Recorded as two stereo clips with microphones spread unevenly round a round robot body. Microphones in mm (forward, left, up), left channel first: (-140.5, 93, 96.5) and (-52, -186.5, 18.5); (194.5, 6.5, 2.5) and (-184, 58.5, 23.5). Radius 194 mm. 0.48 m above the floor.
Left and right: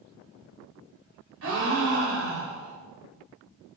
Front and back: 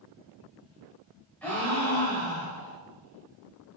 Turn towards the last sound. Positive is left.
turn(degrees=-95)